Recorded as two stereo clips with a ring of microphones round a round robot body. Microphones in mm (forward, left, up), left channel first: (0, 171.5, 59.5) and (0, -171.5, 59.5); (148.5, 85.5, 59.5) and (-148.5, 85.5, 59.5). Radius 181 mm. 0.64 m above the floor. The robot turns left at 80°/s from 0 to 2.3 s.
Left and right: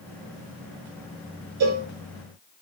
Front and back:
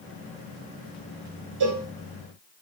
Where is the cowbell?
135° right, 0.8 m; by 1.9 s 155° right, 0.8 m.